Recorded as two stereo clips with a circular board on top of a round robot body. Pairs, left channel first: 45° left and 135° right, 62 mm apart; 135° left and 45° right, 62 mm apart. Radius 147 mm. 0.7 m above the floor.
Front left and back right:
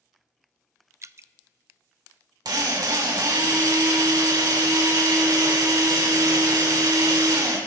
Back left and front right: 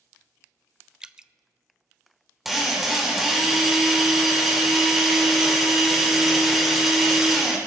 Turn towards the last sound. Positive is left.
turn(degrees=-130)